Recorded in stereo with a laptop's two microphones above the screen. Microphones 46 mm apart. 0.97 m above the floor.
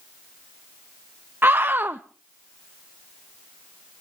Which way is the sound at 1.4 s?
50° right (ahead or behind).